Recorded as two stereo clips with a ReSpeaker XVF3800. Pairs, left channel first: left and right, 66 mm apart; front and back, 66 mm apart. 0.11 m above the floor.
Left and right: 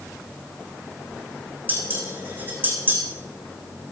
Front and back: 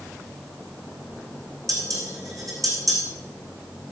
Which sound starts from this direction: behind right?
Dishes clattering, at 1.7 s.